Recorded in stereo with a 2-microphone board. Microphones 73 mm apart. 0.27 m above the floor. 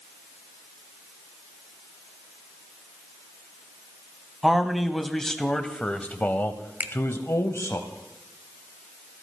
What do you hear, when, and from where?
4.4 s a man speaking: centre (ahead or behind), 1.5 m; by 7.8 s 40° left (ahead or behind), 1.3 m
6.8 s a finger snap: 25° right (ahead or behind), 1.0 m